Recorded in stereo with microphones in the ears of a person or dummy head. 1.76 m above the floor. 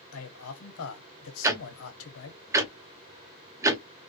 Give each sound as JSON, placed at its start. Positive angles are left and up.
{"t": 0.1, "sound": "a man speaking", "side_deg": 75, "distance_m": 1.4}
{"t": 1.4, "sound": "ticking", "side_deg": -15, "distance_m": 0.6}